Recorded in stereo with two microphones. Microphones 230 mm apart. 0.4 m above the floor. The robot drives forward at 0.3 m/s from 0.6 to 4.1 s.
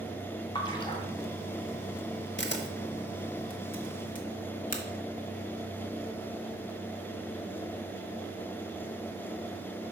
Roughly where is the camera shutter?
Left.